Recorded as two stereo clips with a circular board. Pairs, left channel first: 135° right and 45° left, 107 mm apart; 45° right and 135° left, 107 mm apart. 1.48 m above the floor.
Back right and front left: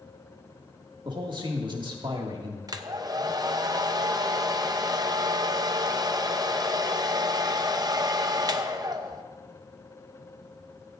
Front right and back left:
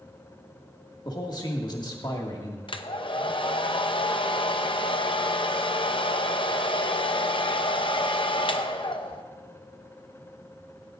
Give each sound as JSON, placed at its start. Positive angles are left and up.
{"t": 1.1, "sound": "a man speaking", "azimuth_deg": 0, "distance_m": 2.0}
{"t": 2.7, "sound": "a hair dryer", "azimuth_deg": -10, "distance_m": 0.7}